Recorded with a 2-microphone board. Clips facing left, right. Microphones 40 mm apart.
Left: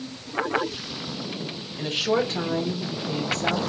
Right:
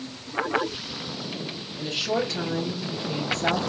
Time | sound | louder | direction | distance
1.8 | a woman speaking | left 3 dB | 50° left (ahead or behind) | 1.5 m